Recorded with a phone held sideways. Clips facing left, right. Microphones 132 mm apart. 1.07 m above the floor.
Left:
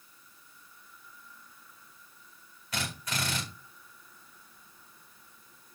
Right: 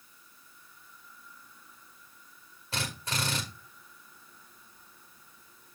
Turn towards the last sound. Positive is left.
turn(degrees=-30)  # may be behind; listen again after turning